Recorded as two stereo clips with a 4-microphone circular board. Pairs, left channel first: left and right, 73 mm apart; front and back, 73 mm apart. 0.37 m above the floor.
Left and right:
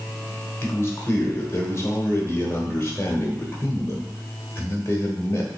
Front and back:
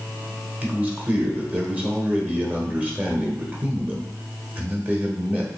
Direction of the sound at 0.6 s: 120° left.